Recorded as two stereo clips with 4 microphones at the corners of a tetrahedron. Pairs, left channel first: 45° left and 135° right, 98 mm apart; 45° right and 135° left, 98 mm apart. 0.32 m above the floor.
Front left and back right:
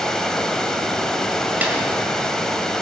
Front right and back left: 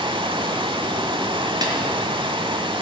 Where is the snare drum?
155° left, 1.8 m.